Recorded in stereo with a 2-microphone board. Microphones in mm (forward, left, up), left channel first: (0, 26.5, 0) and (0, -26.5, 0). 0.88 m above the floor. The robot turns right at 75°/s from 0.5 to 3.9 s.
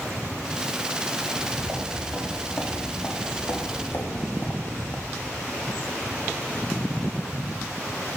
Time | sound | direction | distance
1.2 | footsteps | 50° right (ahead or behind) | 4 m